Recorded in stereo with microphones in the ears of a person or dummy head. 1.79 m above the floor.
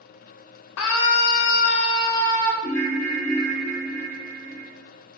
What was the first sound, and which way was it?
A scream, 60° left (ahead or behind).